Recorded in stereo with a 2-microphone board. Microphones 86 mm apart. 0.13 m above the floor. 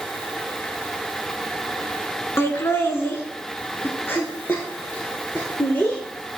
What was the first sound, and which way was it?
Laughter, 30° left (ahead or behind).